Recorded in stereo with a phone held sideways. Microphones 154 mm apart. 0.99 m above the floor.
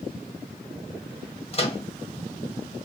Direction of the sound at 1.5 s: 35° left (ahead or behind).